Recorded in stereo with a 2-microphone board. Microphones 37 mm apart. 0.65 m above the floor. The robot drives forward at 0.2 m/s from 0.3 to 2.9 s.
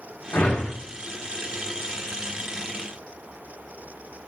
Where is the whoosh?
75° left (ahead or behind), 0.9 m.